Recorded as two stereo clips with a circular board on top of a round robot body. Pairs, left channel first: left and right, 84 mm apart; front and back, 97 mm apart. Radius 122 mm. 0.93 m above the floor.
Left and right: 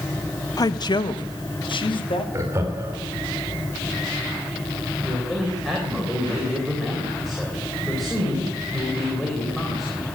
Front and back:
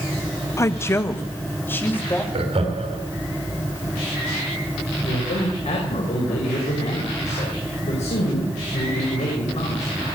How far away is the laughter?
About 3 m.